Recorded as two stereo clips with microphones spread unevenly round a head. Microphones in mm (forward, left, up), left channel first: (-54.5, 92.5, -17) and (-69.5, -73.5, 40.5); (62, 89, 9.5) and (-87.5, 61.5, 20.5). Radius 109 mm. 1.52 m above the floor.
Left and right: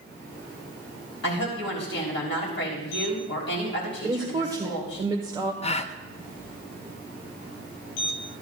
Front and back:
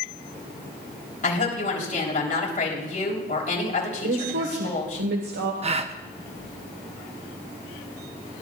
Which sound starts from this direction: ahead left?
A woman speaking, at 1.2 s.